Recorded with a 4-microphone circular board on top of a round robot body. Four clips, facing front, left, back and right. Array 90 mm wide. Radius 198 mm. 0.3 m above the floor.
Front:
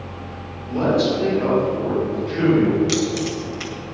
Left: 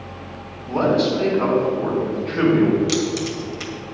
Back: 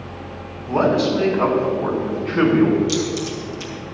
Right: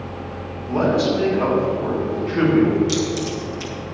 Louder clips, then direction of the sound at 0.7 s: Even, back 1 dB; 170° right.